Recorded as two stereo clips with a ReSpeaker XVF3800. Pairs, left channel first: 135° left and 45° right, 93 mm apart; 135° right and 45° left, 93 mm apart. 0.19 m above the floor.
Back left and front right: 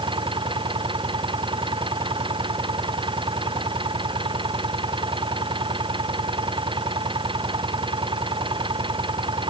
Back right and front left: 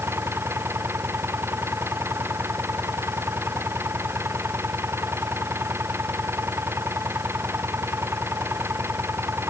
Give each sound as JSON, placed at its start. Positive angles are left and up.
{"t": 0.0, "sound": "an engine running", "azimuth_deg": -20}